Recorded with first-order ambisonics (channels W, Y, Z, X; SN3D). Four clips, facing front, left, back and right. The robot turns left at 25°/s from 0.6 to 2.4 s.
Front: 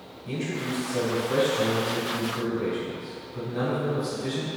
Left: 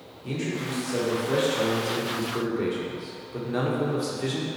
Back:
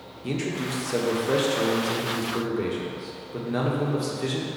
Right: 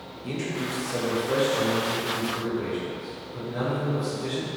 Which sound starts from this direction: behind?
A man speaking, at 0.2 s.